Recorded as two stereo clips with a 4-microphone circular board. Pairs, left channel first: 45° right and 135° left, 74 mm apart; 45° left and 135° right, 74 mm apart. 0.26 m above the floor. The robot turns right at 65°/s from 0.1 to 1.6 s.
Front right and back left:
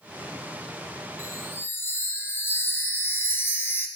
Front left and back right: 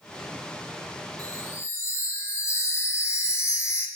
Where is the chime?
20° right, 1.6 m; by 3.9 s 5° left, 1.6 m.